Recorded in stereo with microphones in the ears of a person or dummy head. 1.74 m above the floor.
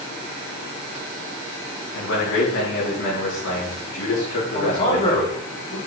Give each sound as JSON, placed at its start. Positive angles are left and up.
{"t": 1.9, "sound": "a man speaking", "side_deg": 65, "distance_m": 3.5}
{"t": 4.5, "sound": "a man speaking", "side_deg": 35, "distance_m": 3.0}